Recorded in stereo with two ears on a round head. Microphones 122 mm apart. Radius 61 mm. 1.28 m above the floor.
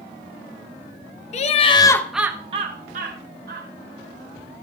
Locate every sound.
1.3 s laughter: 50° left (ahead or behind), 1.0 m; by 3.7 s 75° right (ahead or behind), 1.5 m